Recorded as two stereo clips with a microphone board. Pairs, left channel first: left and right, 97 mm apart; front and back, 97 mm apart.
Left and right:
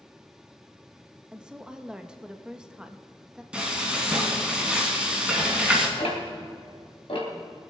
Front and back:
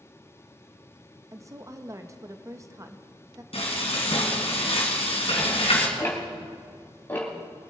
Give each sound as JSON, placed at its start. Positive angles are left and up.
{"t": 1.3, "sound": "a woman speaking", "azimuth_deg": -165, "distance_m": 0.7}
{"t": 3.5, "sound": "frying", "azimuth_deg": -10, "distance_m": 3.0}
{"t": 6.0, "sound": "ticking", "azimuth_deg": 70, "distance_m": 3.0}